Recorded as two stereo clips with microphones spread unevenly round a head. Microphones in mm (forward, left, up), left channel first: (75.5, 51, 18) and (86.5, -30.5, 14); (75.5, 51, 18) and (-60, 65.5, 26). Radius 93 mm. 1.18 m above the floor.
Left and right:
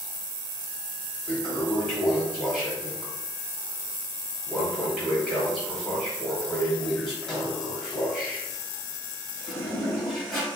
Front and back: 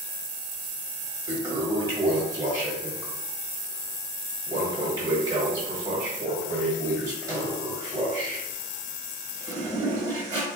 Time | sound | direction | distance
1.3 | a toilet flushing | 170° left | 1.1 m